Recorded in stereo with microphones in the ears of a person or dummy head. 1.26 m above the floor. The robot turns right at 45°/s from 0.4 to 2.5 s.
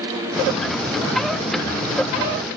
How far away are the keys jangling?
No keys jangling in this recording.